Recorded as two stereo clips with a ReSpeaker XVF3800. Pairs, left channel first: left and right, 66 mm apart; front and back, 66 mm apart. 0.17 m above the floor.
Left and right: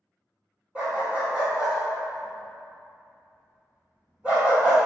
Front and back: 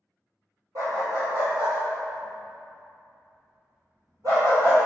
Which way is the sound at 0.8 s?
160° right.